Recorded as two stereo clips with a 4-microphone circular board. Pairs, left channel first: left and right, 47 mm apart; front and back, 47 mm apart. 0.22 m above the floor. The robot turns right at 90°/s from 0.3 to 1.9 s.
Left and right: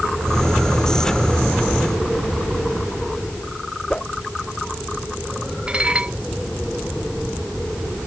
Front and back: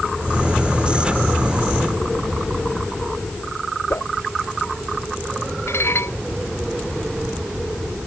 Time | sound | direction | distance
3.9 | a whoosh | 20° left | ?
5.7 | dishes clattering | 20° right | ?